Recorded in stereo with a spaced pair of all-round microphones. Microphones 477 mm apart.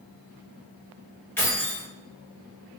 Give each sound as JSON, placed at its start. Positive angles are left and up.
{"t": 1.4, "sound": "keys jangling", "side_deg": 5, "distance_m": 1.3}